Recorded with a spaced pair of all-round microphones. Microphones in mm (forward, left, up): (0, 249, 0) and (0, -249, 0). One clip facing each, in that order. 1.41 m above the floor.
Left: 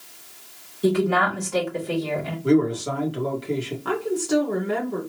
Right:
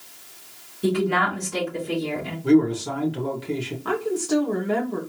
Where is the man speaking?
10° right (ahead or behind), 1.7 m.